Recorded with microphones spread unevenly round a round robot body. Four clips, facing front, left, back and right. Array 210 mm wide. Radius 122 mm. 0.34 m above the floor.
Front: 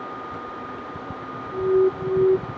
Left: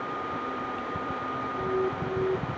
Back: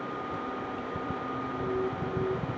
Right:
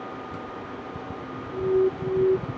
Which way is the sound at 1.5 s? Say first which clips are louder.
Right 8 dB, front 14 dB; 20° right.